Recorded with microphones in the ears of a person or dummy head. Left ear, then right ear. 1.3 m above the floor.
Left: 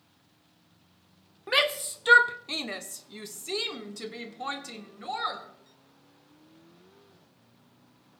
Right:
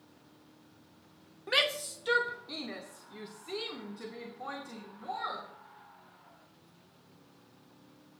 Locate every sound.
1.5 s a shout: 15° left (ahead or behind), 0.9 m; by 5.5 s 70° left (ahead or behind), 2.5 m